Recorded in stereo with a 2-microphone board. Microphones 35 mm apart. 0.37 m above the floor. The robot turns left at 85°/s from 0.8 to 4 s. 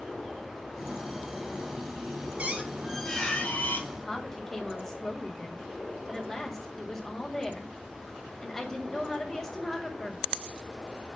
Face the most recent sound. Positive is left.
turn(degrees=10)  # may be behind; listen again after turning